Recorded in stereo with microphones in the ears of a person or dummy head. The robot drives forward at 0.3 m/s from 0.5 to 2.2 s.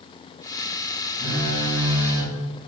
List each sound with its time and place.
1.2 s a phone buzzing: 25° right (ahead or behind), 0.8 m; by 2.7 s 35° right (ahead or behind), 0.6 m